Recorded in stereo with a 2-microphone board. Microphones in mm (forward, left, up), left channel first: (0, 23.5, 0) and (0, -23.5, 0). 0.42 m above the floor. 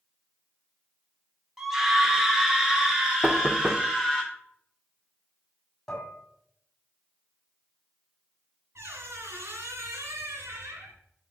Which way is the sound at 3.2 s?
20° right (ahead or behind).